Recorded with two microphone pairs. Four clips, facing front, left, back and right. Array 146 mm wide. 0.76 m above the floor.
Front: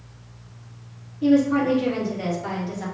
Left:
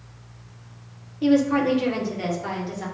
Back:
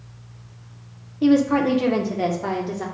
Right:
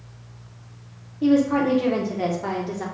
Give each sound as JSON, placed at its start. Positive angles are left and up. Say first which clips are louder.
{"t": 1.2, "sound": "a woman speaking", "louder": "even, back 1 dB", "azimuth_deg": 175, "distance_m": 0.9}